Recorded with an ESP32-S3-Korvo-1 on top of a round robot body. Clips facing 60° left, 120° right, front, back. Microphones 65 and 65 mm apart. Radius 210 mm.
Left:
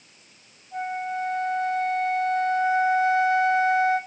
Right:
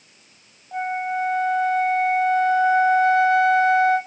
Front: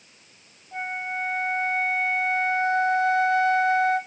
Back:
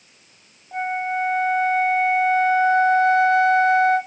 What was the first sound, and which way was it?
A flute, 125° right.